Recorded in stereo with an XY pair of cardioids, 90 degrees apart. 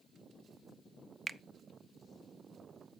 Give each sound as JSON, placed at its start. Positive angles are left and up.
{"t": 1.3, "sound": "a finger snap", "azimuth_deg": -35, "distance_m": 0.5}